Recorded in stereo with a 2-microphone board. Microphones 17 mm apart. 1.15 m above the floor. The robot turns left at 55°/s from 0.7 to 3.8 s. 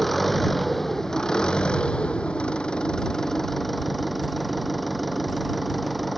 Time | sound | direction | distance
0.0 | an engine running | 170° left | ?